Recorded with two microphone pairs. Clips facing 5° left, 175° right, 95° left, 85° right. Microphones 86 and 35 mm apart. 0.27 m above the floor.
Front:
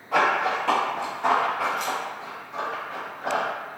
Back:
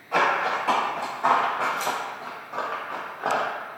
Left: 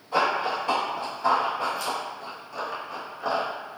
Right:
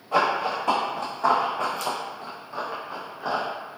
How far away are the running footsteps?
About 1.5 m.